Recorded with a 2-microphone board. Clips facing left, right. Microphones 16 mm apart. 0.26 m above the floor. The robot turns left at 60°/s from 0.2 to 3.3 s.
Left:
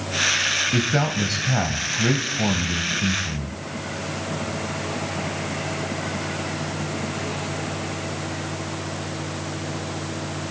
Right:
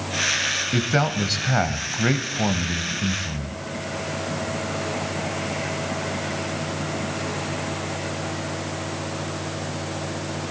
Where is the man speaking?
15° right, 1.1 m; by 3.6 s 170° right, 1.1 m.